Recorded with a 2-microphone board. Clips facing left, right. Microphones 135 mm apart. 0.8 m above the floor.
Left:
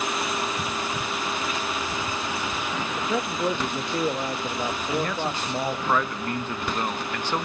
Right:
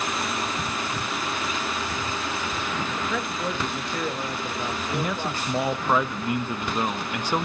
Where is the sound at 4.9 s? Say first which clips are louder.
Left 1 dB; 10° right (ahead or behind), 0.6 m.